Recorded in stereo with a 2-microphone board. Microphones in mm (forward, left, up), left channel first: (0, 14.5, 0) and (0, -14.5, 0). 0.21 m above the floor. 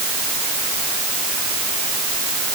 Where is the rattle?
I don't hear a rattle.